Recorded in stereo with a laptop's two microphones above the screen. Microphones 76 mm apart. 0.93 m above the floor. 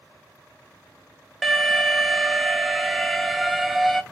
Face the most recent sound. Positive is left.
turn(degrees=0)  # may be behind; listen again after turning